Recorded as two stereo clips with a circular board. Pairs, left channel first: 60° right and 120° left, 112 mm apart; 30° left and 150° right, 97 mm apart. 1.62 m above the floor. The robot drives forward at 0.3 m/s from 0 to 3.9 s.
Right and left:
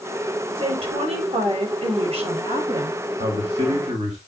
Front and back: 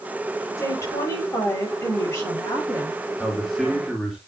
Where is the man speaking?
120° left, 3 m; by 4.2 s 125° left, 3 m.